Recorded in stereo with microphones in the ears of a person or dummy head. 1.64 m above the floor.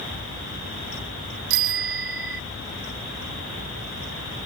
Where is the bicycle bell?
75° right (ahead or behind).